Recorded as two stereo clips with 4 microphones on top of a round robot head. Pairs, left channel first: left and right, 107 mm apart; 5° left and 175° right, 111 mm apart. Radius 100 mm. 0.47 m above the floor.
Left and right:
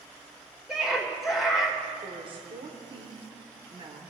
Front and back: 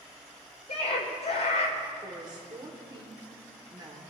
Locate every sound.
0.7 s a scream: 5° right, 2.5 m
2.0 s a woman speaking: 125° right, 1.6 m